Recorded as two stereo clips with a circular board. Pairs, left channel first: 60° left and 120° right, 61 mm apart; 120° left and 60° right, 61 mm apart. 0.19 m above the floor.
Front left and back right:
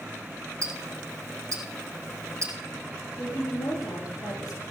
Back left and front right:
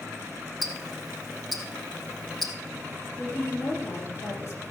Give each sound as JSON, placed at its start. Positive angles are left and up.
{"t": 0.6, "sound": "ticking", "azimuth_deg": -155, "distance_m": 3.0}
{"t": 3.2, "sound": "a woman speaking", "azimuth_deg": 65, "distance_m": 5.5}